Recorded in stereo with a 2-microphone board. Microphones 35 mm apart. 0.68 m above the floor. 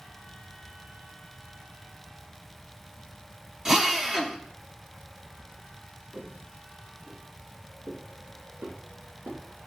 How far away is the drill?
About 1.6 m.